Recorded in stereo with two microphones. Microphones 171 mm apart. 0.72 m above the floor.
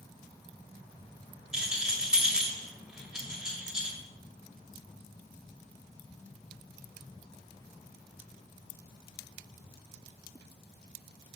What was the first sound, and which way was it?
A rattle, 5° right (ahead or behind).